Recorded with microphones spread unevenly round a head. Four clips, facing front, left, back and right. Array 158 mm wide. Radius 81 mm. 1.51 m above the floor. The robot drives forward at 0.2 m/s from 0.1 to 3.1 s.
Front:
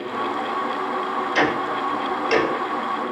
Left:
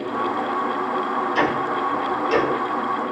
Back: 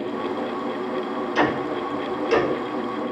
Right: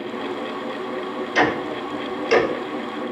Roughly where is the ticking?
Ahead right.